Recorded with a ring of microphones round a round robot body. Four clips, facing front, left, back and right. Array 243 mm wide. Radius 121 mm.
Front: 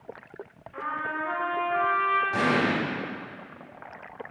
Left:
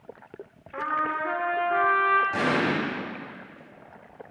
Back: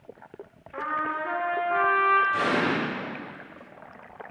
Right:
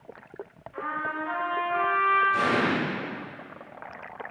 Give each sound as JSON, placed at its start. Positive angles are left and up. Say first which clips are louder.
{"t": 0.7, "sound": "a trumpet", "louder": "left 4 dB, back 3 dB", "azimuth_deg": 115, "distance_m": 2.0}
{"t": 2.3, "sound": "an explosion", "louder": "even, even", "azimuth_deg": 50, "distance_m": 4.5}